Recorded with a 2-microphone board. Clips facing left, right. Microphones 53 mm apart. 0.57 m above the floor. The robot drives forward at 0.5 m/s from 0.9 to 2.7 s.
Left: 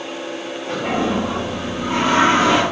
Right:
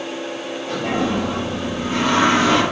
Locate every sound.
0.7 s a toilet flushing: 20° left (ahead or behind), 1.4 m; by 2.6 s 25° left (ahead or behind), 1.3 m